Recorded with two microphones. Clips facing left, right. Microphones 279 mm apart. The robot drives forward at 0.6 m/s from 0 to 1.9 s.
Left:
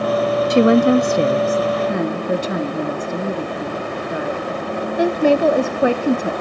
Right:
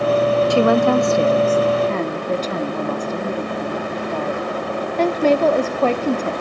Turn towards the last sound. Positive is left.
turn(degrees=10)  # may be behind; listen again after turning